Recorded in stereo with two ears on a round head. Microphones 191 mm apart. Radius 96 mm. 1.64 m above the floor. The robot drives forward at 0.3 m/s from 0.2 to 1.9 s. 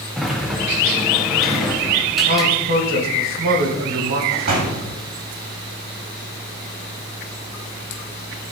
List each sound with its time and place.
0.2 s a sliding door: centre (ahead or behind), 1.0 m
2.3 s a man speaking: 45° right (ahead or behind), 2 m
4.3 s a door slam: 45° right (ahead or behind), 2 m